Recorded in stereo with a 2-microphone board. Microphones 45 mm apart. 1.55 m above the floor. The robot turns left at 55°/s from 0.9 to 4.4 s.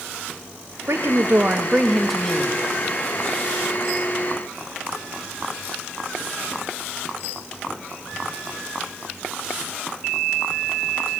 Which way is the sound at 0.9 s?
115° right.